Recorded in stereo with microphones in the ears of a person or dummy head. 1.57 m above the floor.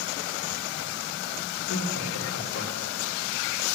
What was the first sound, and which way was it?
Laughter, 80° left.